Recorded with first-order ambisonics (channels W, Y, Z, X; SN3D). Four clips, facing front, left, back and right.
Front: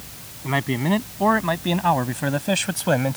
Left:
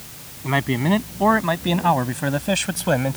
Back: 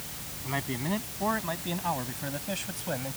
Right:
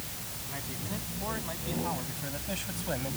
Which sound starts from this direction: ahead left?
A man speaking, at 0.4 s.